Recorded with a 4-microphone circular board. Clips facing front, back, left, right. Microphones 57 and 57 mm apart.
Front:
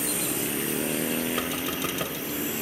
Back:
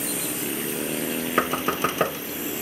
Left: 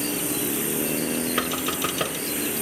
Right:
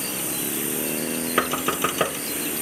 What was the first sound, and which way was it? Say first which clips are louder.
Knocking: back 6 dB, right 3 dB; 155° right.